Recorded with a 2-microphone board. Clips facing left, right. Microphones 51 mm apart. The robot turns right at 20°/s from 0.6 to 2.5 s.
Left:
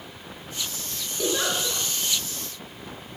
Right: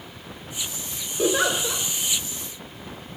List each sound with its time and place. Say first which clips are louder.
1.2 s a giggle: right 4 dB; 30° right (ahead or behind), 1.1 m; by 1.8 s 35° right (ahead or behind), 1.1 m